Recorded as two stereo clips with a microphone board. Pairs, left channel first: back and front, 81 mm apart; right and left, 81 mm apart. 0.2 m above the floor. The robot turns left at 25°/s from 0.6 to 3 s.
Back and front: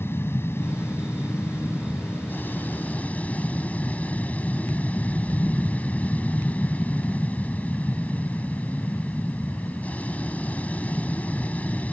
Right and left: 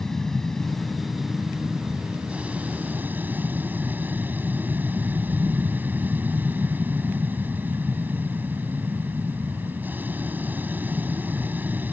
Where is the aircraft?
170° right; by 11.9 s 130° left.